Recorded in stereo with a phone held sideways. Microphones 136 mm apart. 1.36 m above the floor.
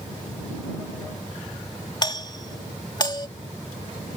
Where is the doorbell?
30° left (ahead or behind).